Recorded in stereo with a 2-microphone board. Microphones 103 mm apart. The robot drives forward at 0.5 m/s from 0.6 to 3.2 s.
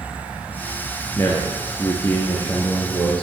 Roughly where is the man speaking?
Left.